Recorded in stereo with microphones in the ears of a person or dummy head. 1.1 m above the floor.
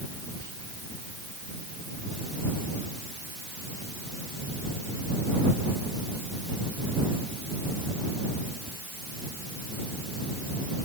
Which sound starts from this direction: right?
Whispering, at 0.4 s.